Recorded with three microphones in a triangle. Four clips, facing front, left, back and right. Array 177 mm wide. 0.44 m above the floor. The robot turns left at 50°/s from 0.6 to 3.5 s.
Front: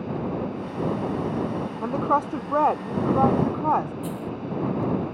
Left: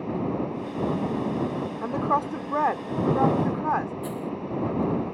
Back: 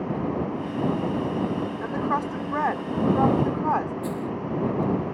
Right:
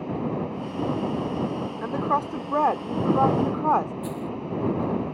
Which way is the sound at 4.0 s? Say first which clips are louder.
Even, back 2 dB; 155° right.